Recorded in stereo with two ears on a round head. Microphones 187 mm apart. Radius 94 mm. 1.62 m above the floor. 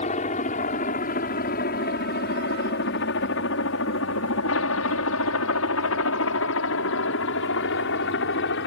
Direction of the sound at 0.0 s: 35° left (ahead or behind).